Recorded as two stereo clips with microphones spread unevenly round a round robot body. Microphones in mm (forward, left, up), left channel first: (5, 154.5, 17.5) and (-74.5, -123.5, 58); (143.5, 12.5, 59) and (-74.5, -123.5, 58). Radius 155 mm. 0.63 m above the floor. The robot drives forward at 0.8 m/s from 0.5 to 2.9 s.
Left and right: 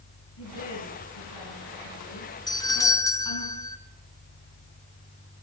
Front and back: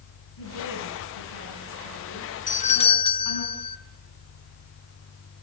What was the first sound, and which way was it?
A woman speaking, 40° left.